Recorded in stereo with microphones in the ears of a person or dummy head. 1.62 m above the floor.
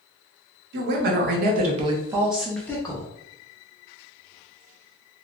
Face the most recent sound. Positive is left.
turn(degrees=30)  # may be behind; listen again after turning